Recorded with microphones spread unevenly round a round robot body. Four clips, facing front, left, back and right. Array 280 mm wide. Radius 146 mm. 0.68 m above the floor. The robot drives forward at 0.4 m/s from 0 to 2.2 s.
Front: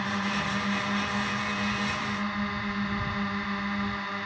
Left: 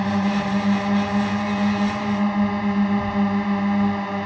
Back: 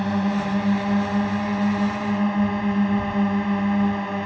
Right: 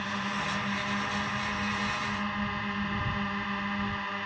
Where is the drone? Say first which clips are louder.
Left 11 dB, back 7 dB; 125° left; by 4.3 s 130° left.